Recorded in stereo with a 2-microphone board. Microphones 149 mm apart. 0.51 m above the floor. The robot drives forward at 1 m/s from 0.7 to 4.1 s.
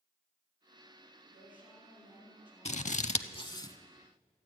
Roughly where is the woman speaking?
Centre.